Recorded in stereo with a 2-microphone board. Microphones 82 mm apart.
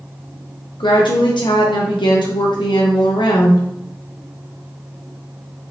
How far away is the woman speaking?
About 0.5 m.